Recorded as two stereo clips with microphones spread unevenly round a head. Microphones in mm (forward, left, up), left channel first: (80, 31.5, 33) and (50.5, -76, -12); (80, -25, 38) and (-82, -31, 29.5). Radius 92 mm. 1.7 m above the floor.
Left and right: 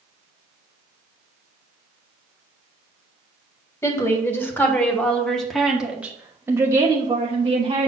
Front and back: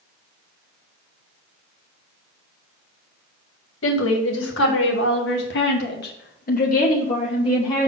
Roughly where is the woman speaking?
Ahead.